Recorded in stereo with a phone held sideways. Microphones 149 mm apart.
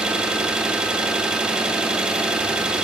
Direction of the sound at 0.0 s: 5° right (ahead or behind).